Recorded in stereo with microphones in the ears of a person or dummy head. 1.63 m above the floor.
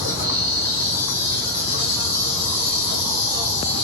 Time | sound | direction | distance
0.0 | an insect | 60° left (ahead or behind) | 3 m